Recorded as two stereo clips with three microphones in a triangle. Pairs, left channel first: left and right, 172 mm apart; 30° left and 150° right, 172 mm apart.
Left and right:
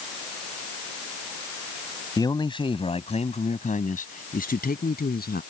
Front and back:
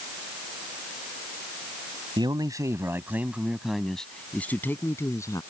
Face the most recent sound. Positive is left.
turn(degrees=100)